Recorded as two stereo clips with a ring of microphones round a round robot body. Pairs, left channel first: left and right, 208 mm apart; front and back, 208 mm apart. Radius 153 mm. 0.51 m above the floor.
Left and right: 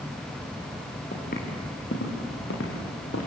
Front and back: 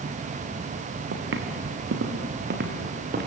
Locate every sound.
1.1 s footsteps: 155° left, 3.5 m; by 3.3 s 140° left, 5 m